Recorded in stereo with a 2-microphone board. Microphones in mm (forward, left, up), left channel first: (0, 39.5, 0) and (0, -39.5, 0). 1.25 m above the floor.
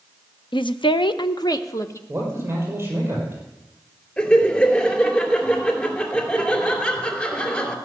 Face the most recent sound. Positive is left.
turn(degrees=15)  # may be behind; listen again after turning